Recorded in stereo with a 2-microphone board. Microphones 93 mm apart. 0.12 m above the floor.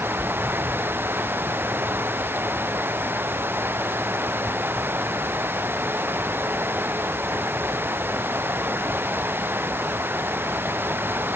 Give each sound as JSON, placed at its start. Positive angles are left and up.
{"t": 0.0, "sound": "running water", "side_deg": -20}